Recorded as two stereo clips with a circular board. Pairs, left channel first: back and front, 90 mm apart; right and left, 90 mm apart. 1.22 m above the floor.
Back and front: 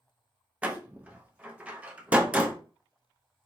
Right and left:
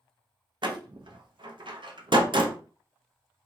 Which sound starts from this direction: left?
A door slam, at 0.6 s.